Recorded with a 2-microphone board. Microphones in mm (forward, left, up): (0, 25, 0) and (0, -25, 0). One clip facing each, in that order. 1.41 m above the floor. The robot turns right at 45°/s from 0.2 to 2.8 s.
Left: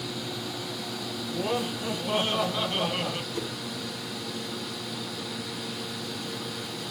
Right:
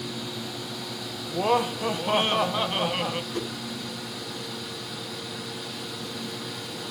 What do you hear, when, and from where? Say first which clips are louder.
1.3 s laughter: right 6 dB; 90° right, 0.9 m; by 3.2 s 20° right, 0.9 m
3.3 s a whoosh: right 2 dB; 45° right (ahead or behind), 1.2 m